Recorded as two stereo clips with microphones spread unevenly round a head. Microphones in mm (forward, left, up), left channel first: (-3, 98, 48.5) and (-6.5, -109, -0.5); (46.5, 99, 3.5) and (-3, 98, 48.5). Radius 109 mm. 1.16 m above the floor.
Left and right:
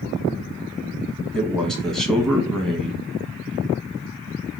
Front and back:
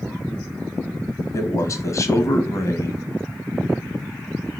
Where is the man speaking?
Straight ahead, 1.1 m.